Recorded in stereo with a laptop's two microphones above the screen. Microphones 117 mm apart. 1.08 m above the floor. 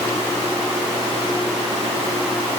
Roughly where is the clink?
No clink in this recording.